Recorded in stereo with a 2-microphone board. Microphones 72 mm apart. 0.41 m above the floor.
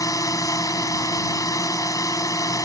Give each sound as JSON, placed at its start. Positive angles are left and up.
{"t": 0.0, "sound": "a drone", "side_deg": 55}